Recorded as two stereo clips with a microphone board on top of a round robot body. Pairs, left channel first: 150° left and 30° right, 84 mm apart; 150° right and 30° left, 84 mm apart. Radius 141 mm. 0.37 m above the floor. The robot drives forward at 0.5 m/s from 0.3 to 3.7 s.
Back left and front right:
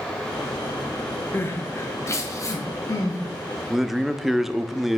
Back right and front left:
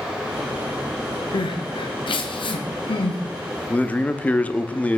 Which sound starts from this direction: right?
A man speaking, at 3.7 s.